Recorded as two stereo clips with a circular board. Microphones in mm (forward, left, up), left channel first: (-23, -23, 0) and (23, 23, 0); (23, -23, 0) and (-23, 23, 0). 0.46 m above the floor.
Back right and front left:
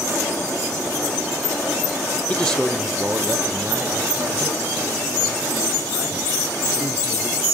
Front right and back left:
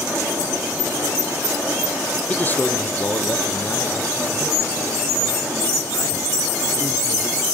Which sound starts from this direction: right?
A man speaking, at 2.3 s.